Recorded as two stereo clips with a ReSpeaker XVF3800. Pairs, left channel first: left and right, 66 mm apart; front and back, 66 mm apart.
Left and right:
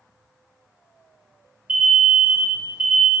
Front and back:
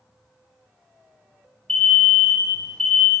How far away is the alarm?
About 0.8 m.